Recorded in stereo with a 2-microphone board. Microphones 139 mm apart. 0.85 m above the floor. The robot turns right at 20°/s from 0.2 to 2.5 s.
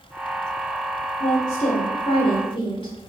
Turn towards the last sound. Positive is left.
turn(degrees=40)  # may be behind; listen again after turning